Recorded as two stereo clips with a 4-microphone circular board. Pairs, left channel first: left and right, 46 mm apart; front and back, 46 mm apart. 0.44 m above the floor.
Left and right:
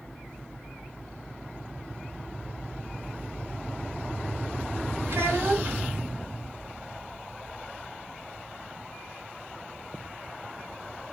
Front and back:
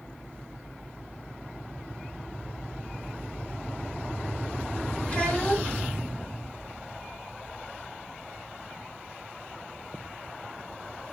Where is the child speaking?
65° right, 1.4 m.